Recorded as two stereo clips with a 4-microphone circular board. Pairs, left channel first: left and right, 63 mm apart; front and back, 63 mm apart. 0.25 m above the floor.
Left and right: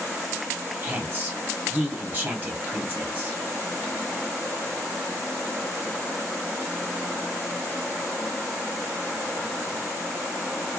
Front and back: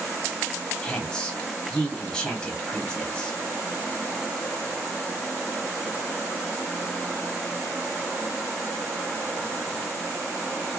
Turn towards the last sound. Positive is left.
turn(degrees=-65)